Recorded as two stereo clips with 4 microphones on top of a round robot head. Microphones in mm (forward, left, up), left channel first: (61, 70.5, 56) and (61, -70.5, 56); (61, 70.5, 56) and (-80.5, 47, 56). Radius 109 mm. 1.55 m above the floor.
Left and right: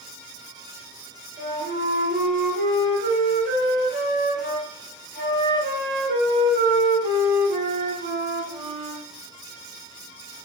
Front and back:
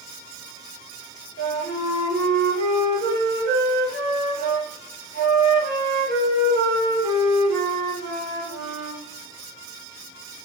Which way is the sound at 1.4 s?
130° right.